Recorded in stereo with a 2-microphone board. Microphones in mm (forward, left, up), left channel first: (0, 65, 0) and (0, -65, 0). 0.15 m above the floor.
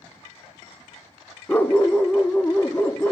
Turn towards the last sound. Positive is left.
turn(degrees=15)  # may be behind; listen again after turning